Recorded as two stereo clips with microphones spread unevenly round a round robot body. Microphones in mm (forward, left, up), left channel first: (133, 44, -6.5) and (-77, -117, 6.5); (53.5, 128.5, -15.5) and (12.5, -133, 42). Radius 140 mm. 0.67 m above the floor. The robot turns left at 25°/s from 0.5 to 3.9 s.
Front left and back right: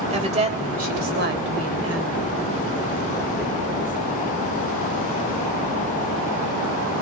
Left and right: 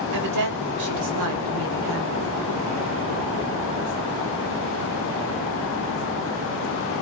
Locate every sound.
0.1 s a woman speaking: 80° right, 3.5 m; by 2.4 s 125° right, 3.5 m